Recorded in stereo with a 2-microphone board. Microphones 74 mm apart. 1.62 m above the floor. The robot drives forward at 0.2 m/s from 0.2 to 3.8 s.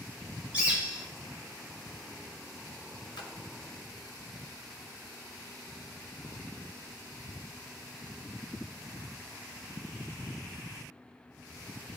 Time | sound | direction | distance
0.5 | a bird | 20° right (ahead or behind) | 2.5 m
3.2 | a splash | 80° left | 1.4 m